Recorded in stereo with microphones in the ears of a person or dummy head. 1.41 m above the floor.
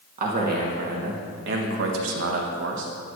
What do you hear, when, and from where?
0.2 s a man speaking: 50° right (ahead or behind), 2.0 m; by 2.9 s 70° right (ahead or behind), 1.4 m